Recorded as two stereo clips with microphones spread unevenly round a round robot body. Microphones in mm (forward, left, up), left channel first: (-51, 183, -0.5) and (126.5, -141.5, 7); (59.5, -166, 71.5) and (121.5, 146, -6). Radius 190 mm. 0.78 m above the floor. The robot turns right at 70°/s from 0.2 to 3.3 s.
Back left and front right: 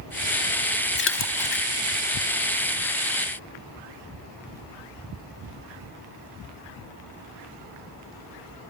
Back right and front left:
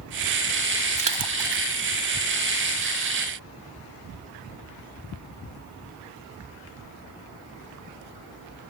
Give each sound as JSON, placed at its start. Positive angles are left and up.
{"t": 1.0, "sound": "a splash", "azimuth_deg": 55}